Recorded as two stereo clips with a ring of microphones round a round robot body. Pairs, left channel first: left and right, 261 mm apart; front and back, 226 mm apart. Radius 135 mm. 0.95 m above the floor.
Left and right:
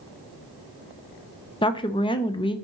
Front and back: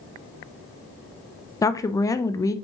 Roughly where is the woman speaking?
Ahead left.